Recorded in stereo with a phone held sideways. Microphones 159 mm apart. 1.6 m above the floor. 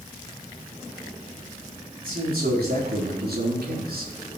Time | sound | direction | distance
2.0 | a man speaking | 70° right (ahead or behind) | 4 m